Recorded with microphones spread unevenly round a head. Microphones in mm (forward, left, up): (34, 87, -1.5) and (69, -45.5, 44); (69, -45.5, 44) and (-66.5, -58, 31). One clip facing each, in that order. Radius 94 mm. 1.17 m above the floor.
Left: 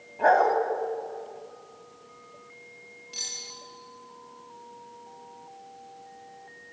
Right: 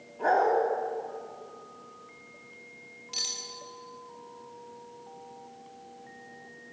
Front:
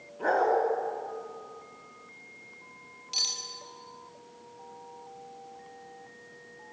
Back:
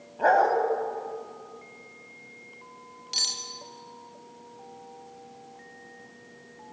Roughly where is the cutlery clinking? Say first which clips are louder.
Right 4 dB, back 1 dB; behind right.